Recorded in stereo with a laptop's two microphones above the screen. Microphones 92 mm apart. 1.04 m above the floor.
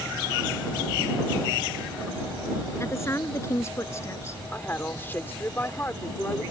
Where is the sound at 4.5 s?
25° left (ahead or behind).